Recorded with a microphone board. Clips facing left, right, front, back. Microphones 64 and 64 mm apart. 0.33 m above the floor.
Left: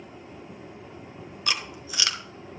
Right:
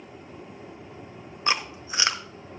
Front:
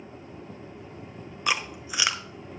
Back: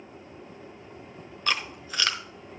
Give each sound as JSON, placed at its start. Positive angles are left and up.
{"t": 1.5, "sound": "chewing", "azimuth_deg": -65, "distance_m": 1.0}